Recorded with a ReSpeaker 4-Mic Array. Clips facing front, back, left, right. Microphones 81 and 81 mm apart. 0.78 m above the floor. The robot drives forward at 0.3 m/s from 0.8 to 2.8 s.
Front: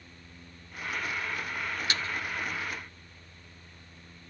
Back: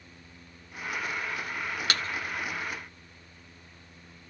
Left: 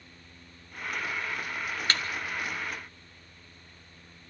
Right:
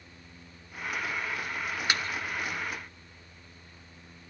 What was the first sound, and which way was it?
A thud, 170° right.